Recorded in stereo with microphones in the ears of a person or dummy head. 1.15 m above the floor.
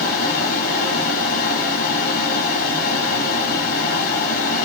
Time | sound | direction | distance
0.0 | a fan | 50° left (ahead or behind) | 1.1 m